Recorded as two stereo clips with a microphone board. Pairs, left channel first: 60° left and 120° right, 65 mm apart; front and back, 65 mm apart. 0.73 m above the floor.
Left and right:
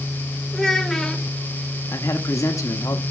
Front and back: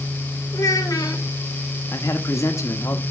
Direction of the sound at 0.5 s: 20° right.